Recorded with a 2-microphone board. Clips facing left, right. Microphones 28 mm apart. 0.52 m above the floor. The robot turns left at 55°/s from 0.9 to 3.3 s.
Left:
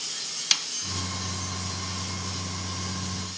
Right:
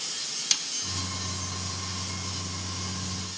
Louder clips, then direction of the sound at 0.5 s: Left 4 dB; 25° left (ahead or behind).